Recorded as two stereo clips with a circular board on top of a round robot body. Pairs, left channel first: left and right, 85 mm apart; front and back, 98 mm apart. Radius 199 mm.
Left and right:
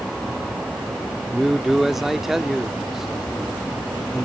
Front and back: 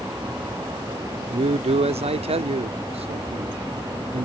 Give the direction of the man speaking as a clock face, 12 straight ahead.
6 o'clock.